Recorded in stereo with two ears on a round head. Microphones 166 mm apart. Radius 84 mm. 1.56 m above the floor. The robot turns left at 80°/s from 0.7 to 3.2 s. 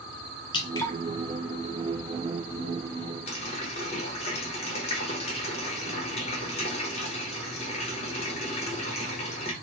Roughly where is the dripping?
Left.